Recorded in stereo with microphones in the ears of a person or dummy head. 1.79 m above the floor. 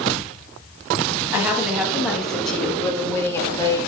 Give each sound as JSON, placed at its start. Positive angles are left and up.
{"t": 1.3, "sound": "a woman speaking", "side_deg": -15, "distance_m": 2.5}